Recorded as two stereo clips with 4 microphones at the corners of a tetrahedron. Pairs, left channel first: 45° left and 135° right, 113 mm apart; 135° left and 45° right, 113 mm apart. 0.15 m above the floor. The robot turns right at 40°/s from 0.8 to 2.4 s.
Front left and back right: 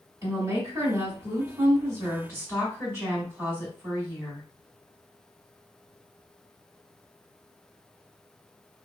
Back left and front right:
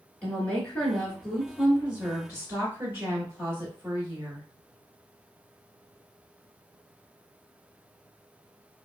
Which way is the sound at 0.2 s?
155° right.